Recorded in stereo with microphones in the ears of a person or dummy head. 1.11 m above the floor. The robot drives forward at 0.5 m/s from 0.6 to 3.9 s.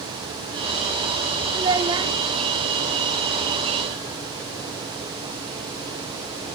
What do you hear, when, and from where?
1.5 s a child speaking: 20° right (ahead or behind), 1.0 m; by 2.1 s 25° right (ahead or behind), 0.8 m